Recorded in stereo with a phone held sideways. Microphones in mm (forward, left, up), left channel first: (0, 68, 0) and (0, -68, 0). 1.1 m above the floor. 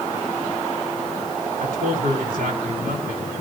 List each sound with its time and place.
1.6 s a man speaking: 85° right, 3 m